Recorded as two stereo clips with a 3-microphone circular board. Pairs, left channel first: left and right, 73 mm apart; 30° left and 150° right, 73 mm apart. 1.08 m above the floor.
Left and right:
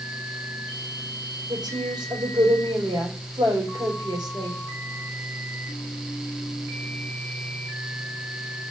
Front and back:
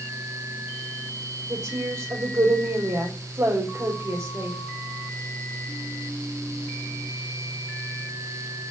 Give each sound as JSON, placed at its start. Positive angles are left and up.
{"t": 1.5, "sound": "a woman speaking", "azimuth_deg": -115, "distance_m": 5.0}